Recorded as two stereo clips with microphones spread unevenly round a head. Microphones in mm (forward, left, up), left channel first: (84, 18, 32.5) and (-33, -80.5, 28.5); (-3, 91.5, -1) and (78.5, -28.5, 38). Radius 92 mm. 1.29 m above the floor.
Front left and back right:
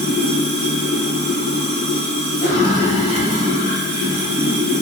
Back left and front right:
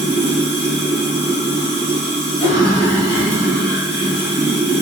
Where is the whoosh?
65° left, 0.9 m.